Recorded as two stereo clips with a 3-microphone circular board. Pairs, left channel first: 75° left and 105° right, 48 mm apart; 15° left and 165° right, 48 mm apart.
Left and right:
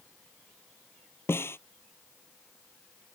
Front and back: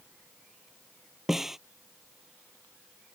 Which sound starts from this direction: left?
A snare drum, at 1.3 s.